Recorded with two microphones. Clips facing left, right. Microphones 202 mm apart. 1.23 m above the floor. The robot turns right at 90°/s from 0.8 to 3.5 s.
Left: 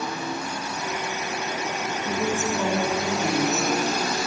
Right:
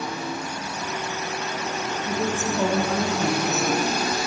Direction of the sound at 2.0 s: 165° left.